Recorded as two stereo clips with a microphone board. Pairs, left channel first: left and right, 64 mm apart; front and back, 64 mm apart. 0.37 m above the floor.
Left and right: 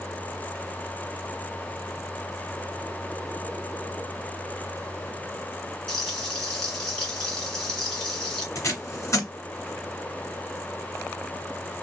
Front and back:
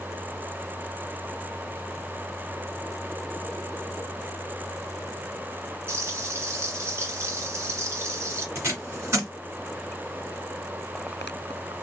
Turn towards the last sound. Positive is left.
turn(degrees=130)